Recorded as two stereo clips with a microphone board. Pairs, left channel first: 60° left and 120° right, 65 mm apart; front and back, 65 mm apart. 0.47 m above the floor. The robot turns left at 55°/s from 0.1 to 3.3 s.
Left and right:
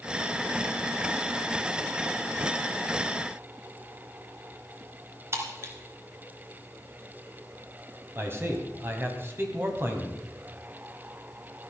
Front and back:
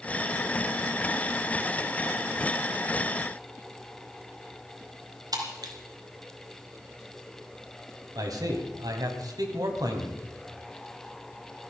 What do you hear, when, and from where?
5.3 s breaking glass: 170° right, 2 m
8.2 s a man speaking: 175° right, 2.5 m